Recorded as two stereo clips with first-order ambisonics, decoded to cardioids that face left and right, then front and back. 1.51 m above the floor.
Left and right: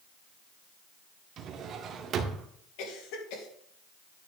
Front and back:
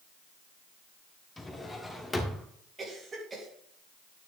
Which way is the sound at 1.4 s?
75° right.